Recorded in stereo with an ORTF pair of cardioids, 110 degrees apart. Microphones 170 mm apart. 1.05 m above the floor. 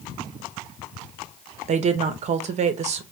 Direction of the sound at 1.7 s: 45° right.